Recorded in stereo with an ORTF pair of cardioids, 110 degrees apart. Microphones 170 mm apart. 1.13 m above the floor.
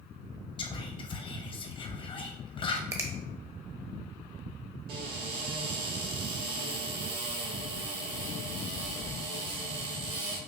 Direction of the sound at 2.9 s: 15° right.